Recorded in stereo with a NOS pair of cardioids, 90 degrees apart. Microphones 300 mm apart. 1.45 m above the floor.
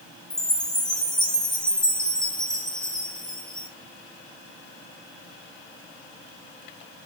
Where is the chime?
Straight ahead, 3.5 m.